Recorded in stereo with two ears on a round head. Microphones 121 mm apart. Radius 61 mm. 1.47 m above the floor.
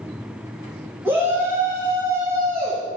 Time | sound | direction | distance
1.1 | a shout | 15° right (ahead or behind) | 2.5 m